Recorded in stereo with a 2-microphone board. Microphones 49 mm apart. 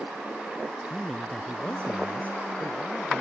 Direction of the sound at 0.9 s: 10° left (ahead or behind).